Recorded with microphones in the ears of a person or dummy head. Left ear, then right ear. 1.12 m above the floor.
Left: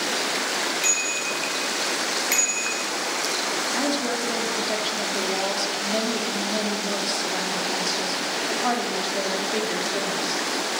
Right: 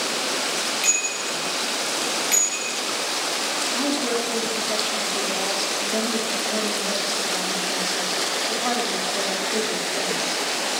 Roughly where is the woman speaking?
Centre.